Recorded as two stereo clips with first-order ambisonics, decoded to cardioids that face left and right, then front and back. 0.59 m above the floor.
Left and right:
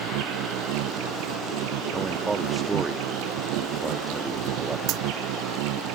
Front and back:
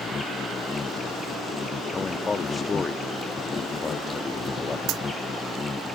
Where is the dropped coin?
135° right.